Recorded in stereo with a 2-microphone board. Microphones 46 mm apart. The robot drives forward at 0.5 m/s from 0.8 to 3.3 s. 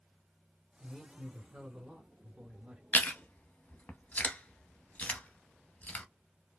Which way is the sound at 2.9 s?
45° left (ahead or behind).